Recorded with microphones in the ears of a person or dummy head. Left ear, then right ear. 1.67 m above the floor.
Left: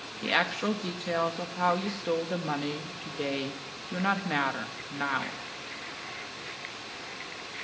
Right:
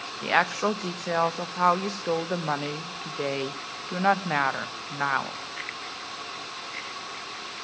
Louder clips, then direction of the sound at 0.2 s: Right 4 dB; 35° right (ahead or behind).